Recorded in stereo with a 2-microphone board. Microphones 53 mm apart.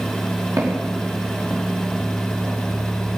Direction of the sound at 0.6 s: 85° right.